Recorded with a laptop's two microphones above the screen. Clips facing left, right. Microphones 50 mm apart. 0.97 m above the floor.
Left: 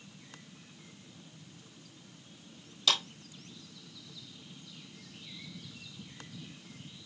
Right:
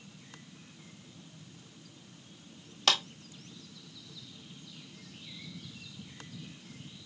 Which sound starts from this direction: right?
A clap, at 2.9 s.